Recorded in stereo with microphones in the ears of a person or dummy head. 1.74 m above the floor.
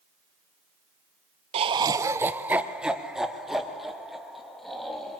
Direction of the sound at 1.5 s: 30° right (ahead or behind).